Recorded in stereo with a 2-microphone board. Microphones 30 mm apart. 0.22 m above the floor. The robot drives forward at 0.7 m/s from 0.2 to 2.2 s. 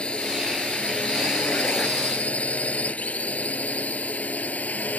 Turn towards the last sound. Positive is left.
turn(degrees=65)  # may be behind; listen again after turning